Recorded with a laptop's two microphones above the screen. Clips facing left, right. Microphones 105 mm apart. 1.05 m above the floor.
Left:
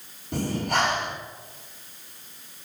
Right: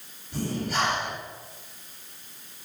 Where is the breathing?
70° left (ahead or behind), 3.5 m.